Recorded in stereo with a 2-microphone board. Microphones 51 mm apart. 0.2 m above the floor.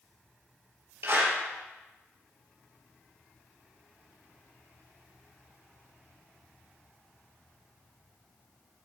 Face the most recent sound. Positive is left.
turn(degrees=-60)  # may be behind; listen again after turning